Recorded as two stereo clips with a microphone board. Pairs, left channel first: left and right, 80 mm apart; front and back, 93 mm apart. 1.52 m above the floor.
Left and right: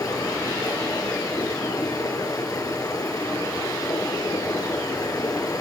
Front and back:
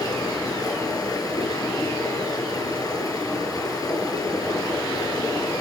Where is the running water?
50° left, 6 m.